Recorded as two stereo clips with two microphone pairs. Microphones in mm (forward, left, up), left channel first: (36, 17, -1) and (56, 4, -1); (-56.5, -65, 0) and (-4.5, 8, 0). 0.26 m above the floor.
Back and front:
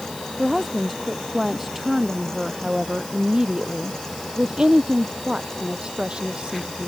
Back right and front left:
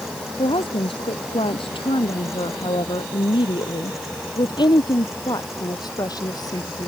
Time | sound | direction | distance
0.4 | a woman speaking | 125° right | ?